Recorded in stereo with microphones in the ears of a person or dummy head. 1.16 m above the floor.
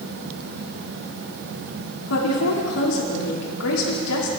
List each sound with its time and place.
2.1 s a woman speaking: 85° left, 2.5 m